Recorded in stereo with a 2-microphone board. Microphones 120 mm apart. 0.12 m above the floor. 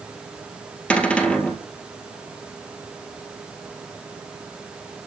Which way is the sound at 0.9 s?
10° left (ahead or behind).